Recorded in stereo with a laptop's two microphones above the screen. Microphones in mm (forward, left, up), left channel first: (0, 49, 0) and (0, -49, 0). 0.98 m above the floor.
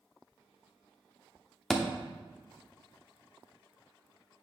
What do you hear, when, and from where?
1.7 s a thud: 5° left (ahead or behind), 1.0 m